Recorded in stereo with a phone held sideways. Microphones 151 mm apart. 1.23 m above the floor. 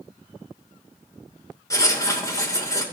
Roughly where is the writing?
Left.